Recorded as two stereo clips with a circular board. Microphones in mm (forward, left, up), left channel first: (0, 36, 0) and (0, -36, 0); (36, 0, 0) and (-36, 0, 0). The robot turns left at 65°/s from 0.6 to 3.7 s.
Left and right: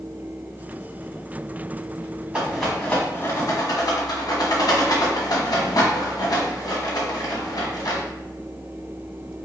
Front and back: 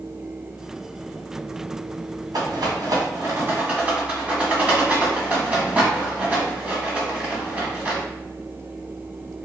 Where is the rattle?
160° right, 1.8 m; by 8.0 s 115° left, 1.8 m.